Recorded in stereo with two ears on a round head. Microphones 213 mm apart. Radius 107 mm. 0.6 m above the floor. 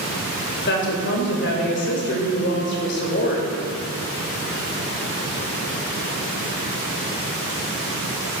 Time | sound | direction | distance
0.7 | a woman speaking | 50° left (ahead or behind) | 3 m